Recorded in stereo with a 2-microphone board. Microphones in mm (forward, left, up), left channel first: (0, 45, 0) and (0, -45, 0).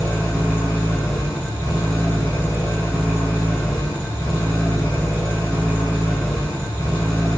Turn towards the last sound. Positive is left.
turn(degrees=35)  # may be behind; listen again after turning